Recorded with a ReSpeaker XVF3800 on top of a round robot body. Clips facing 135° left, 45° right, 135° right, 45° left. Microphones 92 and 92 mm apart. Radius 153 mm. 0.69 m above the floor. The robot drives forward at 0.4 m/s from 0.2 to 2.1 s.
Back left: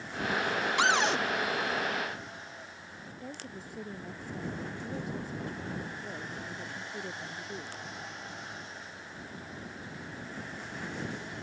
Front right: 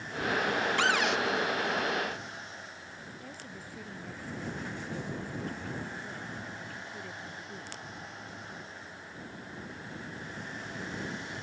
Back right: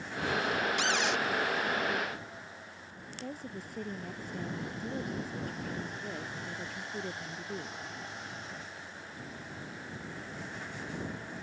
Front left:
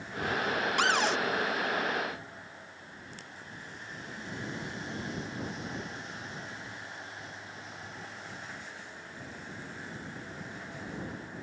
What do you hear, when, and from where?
0.8 s a cupboard door: 65° left; by 1.2 s 95° left
3.2 s a woman speaking: 155° right